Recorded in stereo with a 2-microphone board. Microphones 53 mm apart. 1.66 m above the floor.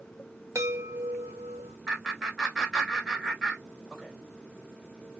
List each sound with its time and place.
0.6 s a chime: 70° right (ahead or behind), 0.9 m
1.9 s laughter: centre (ahead or behind), 1.4 m